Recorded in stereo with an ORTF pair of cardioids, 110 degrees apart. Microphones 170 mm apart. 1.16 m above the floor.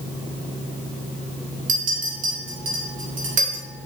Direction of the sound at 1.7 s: 50° right.